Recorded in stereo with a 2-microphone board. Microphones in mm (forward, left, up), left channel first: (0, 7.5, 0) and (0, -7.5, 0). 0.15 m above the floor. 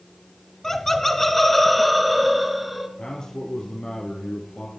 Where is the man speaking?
55° left (ahead or behind), 3.5 m.